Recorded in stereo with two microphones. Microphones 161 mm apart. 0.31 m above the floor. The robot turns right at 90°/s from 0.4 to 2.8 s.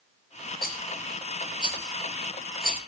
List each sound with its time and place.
0.6 s a rattle: 65° left (ahead or behind), 3.5 m; by 2.8 s 50° right (ahead or behind), 3.5 m